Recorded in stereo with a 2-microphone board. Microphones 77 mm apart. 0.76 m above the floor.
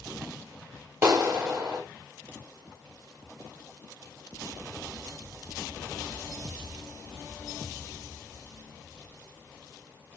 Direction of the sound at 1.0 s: 35° right (ahead or behind).